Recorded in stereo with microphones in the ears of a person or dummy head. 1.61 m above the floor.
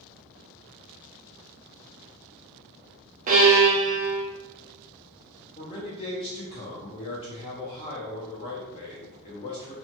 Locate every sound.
3.3 s a violin: 40° right (ahead or behind), 0.7 m
5.6 s a man speaking: 25° left (ahead or behind), 0.5 m